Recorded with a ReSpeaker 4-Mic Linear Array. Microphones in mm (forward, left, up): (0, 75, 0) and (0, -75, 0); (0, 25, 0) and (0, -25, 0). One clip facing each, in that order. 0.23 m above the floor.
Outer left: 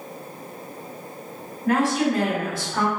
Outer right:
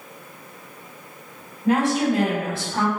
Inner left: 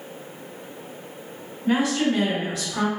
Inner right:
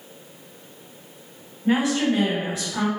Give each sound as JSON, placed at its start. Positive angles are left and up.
{"t": 1.6, "sound": "a woman speaking", "side_deg": -25, "distance_m": 1.9}